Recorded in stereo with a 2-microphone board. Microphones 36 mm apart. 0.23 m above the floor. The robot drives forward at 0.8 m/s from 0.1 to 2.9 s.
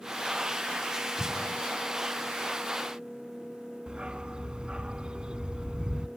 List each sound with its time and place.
1.2 s an explosion: 40° left (ahead or behind), 1.1 m; by 1.6 s 30° left (ahead or behind), 1.3 m
3.9 s a dog barking: 25° right (ahead or behind), 0.6 m